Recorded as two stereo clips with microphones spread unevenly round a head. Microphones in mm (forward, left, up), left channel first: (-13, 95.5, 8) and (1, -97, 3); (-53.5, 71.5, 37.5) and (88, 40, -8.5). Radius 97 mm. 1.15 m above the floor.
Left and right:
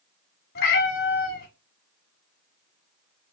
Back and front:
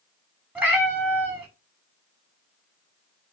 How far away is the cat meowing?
About 1.0 m.